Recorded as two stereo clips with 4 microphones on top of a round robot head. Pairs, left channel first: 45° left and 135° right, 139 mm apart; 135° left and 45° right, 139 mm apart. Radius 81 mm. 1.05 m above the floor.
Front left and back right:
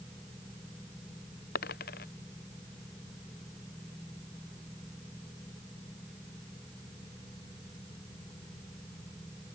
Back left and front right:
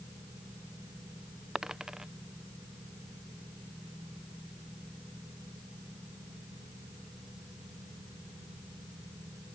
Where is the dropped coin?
40° left.